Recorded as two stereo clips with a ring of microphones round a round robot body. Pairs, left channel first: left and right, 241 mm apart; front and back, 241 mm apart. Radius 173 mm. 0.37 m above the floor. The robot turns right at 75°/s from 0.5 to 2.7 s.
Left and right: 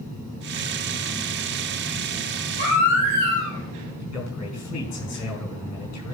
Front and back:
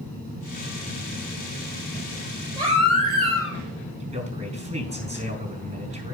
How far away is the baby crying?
About 4 m.